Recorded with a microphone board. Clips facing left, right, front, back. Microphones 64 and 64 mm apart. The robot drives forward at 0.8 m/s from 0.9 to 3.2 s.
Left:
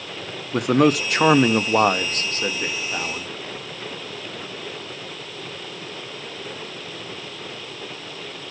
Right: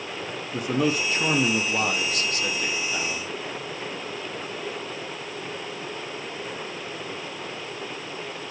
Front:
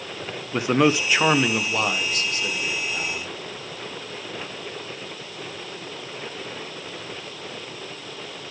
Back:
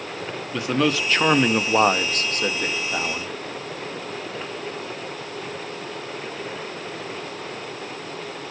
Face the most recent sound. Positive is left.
turn(degrees=155)